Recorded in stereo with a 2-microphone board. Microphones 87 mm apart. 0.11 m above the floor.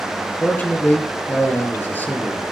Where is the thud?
I don't hear a thud.